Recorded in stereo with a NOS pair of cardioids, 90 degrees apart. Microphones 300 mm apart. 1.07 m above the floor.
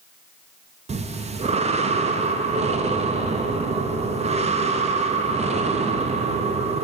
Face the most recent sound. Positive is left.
turn(degrees=-25)